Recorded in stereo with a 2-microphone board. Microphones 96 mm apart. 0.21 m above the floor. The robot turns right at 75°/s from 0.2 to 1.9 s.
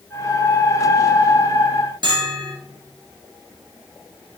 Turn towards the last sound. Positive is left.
turn(degrees=-55)  # may be behind; listen again after turning